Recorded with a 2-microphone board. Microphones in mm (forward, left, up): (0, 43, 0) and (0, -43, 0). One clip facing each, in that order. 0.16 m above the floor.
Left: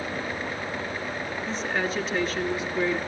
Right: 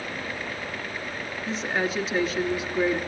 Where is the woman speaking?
5° right (ahead or behind), 2.5 m.